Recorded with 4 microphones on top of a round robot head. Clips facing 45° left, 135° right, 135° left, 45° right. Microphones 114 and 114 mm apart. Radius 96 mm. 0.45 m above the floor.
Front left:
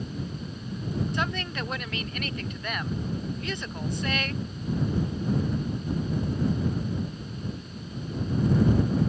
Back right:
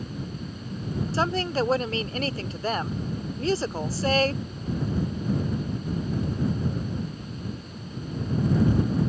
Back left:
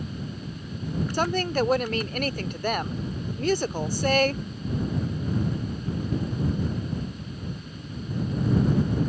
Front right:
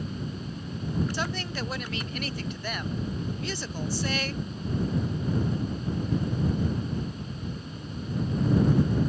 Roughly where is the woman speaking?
Behind.